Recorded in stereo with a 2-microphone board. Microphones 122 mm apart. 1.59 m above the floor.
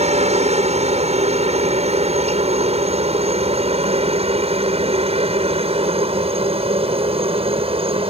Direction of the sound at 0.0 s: 65° right (ahead or behind).